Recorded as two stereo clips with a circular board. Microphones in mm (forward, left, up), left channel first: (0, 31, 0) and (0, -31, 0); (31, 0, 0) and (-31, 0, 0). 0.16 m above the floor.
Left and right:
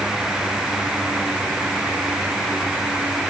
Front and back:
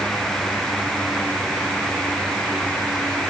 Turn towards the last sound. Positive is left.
No sound to turn to.